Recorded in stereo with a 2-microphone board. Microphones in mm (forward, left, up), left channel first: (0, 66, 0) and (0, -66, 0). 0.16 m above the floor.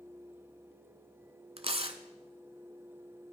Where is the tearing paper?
45° right (ahead or behind), 0.8 m.